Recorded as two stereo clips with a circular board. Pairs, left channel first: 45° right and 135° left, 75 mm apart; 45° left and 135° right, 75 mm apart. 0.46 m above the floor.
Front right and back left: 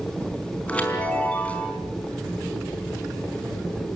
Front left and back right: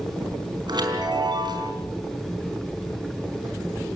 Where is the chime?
120° right, 4 m.